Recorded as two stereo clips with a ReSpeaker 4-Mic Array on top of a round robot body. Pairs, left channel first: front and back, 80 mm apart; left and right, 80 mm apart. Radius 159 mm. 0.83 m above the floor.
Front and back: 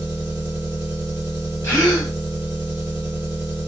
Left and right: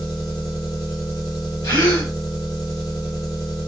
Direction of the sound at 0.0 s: 120° left.